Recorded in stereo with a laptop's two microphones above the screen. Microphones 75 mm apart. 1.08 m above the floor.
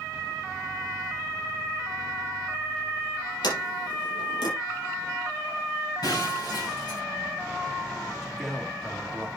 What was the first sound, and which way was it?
A sliding door, 80° left.